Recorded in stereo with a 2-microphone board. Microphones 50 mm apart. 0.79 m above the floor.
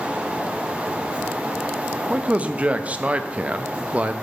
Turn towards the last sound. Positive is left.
turn(degrees=-25)  # may be behind; listen again after turning